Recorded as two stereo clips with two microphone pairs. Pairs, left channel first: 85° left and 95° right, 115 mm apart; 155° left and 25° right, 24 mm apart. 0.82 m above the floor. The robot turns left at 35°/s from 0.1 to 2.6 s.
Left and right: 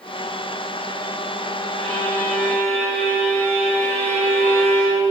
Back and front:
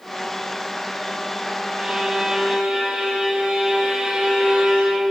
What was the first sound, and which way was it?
A violin, 40° left.